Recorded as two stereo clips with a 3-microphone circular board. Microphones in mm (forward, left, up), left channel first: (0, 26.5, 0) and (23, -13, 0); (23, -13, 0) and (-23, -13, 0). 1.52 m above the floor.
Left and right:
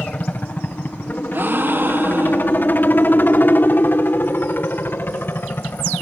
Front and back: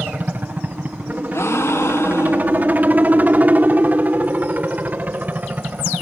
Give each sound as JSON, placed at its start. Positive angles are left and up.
{"t": 0.0, "sound": "a helicopter", "azimuth_deg": 150}
{"t": 1.3, "sound": "a gasp", "azimuth_deg": -20}